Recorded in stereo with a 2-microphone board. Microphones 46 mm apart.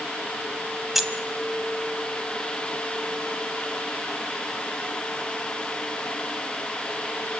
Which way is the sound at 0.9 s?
5° right (ahead or behind).